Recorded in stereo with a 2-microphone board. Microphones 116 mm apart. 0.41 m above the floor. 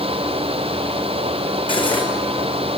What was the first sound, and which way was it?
Cutlery clinking, 45° left (ahead or behind).